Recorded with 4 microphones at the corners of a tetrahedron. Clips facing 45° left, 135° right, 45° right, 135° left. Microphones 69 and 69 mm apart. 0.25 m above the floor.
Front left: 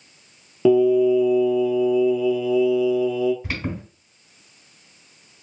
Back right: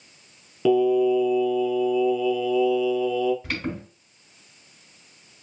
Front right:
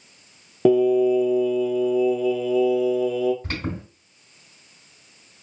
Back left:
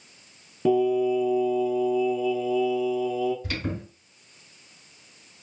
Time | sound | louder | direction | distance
0.7 | singing | front left 3 dB, front right 5 dB | 25° right | 0.6 m
3.4 | an alarm | front left 1 dB, front right 1 dB | 35° right | 2.5 m